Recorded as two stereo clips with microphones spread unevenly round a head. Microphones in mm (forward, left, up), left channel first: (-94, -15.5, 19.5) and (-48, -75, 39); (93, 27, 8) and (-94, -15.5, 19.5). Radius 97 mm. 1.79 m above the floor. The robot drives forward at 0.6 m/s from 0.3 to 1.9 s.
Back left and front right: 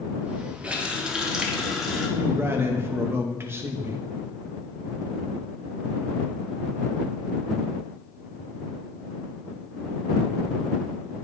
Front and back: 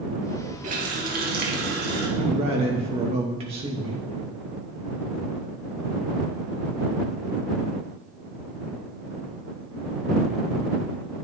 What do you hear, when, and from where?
0.6 s a running tap: 120° right, 2.5 m; by 2.1 s 130° right, 3 m
2.2 s a man speaking: 105° right, 3 m